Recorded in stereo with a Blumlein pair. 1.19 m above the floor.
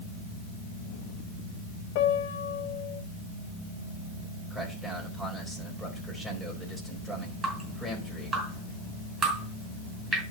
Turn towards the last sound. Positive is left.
turn(degrees=-15)